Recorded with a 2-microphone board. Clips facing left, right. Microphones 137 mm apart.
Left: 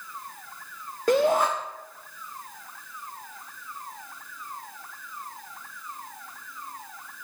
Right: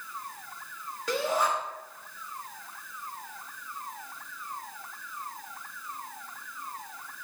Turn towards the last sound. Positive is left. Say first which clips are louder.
# left 7 dB
turn(degrees=50)  # may be behind; listen again after turning